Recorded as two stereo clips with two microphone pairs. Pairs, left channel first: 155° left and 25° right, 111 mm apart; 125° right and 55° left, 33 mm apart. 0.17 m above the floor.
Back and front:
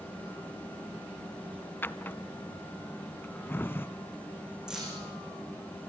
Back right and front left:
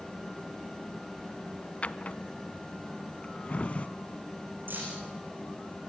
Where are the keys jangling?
55° left, 9.5 m.